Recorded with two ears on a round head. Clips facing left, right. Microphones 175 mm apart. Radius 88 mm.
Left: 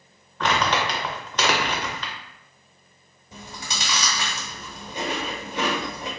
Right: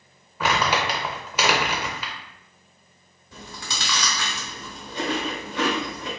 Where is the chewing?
15° left (ahead or behind), 0.8 m.